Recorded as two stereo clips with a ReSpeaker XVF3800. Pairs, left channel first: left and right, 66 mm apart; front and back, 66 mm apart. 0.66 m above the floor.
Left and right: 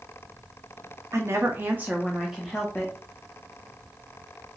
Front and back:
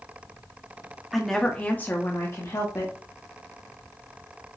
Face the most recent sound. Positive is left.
turn(degrees=15)